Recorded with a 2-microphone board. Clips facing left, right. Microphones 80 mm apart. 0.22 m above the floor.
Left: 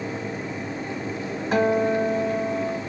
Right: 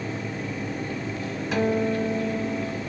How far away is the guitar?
About 1.0 m.